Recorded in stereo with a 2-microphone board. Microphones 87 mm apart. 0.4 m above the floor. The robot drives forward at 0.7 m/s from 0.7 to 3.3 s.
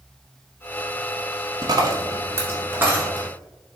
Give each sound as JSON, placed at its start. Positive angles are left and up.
{"t": 1.6, "sound": "a dropped coin", "side_deg": -55, "distance_m": 0.8}